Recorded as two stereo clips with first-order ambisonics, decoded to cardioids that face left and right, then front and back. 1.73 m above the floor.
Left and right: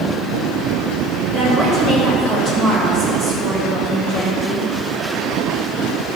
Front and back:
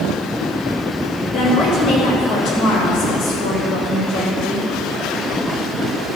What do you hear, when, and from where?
1.3 s a woman speaking: 30° right, 3.5 m; by 4.7 s 40° right, 5 m